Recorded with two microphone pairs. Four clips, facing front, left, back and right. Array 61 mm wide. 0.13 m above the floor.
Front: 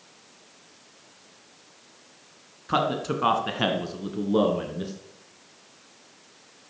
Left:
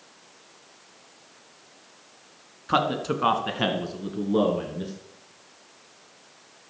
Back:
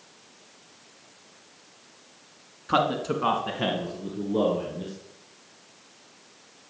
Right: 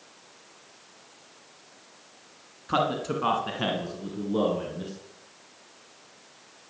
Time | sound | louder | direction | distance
2.7 | a man speaking | left 2 dB, back 1 dB | 115° left | 1.8 m